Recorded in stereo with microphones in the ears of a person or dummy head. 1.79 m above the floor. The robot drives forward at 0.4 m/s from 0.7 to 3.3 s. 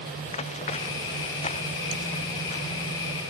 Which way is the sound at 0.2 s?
35° left (ahead or behind).